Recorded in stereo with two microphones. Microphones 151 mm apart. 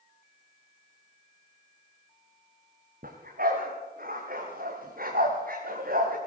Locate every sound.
3.0 s a dog barking: 75° right (ahead or behind), 5.5 m